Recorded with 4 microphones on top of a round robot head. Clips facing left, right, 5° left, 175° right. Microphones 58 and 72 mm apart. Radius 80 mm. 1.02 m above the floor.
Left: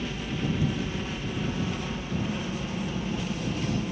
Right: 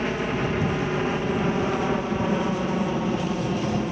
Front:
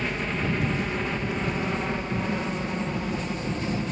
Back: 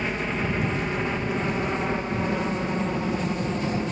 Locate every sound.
0.0 s a helicopter: 95° right; by 3.9 s 110° right